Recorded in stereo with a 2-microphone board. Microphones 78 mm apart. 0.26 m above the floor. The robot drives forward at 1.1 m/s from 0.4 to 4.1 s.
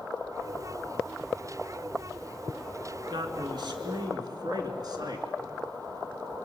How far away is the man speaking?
About 2.5 m.